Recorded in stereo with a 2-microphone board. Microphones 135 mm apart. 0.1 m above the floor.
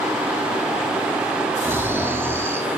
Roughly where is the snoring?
Centre.